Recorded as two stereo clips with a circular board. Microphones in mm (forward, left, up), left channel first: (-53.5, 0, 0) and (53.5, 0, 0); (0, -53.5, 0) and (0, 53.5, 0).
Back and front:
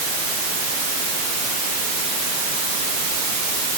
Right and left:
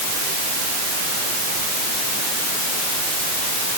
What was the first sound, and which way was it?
Only background noise.